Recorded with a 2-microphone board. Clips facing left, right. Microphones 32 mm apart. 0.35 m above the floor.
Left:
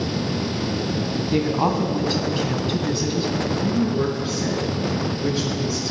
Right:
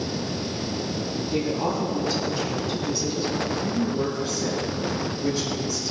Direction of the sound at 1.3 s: 55° left (ahead or behind).